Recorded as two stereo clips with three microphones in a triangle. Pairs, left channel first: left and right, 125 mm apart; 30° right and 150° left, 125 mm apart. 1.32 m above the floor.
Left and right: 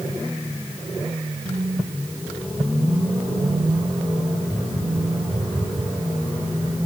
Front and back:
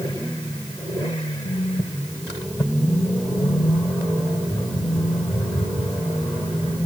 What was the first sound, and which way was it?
A phone buzzing, 50° right.